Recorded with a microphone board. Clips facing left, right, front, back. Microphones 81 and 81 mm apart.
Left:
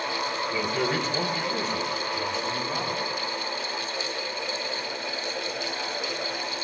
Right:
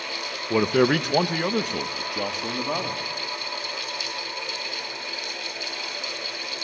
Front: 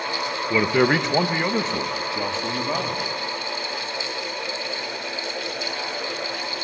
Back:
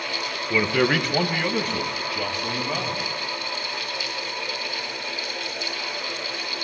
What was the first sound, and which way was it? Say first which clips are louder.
A man speaking: right 10 dB, front 2 dB; 75° right.